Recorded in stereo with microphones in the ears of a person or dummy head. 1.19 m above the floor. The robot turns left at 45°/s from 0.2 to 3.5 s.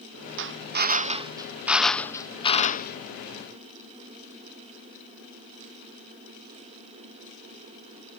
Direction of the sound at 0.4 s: 115° right.